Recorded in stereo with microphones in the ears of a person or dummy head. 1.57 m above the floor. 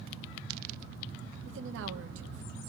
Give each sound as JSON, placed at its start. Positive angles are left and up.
{"t": 1.4, "sound": "a woman speaking", "side_deg": -75, "distance_m": 1.8}